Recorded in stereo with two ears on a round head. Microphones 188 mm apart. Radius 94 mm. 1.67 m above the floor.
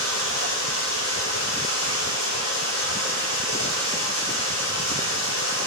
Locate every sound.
0.0 s running water: 80° left, 6 m